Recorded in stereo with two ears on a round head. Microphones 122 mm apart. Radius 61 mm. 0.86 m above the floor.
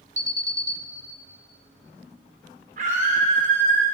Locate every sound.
0.2 s an alarm: 20° right (ahead or behind), 1.0 m
2.8 s a scream: 55° right (ahead or behind), 3 m